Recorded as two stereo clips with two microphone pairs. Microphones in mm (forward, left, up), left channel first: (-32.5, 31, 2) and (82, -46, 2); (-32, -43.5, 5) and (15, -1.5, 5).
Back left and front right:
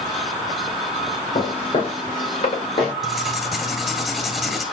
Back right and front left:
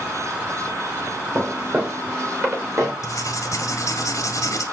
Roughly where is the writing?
Behind right.